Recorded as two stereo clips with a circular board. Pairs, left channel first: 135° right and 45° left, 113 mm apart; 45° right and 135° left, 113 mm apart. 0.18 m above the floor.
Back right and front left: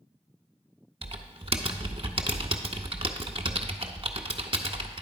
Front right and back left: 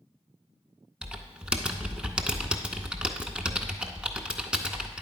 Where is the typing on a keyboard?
55° left, 0.5 m.